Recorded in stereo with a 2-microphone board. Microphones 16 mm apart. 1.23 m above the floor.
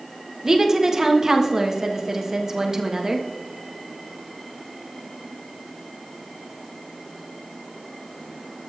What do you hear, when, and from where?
0.4 s a woman speaking: 30° right (ahead or behind), 1.3 m